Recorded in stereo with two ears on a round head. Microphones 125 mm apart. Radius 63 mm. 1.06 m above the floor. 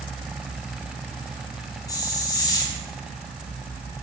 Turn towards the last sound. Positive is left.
turn(degrees=25)  # may be behind; listen again after turning